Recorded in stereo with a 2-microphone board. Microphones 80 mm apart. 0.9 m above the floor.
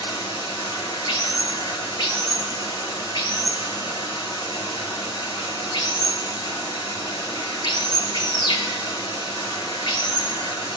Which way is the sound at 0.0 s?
65° left (ahead or behind).